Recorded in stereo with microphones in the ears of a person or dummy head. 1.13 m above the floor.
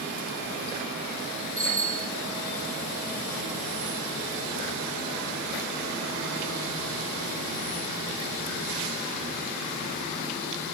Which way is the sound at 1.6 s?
10° left (ahead or behind).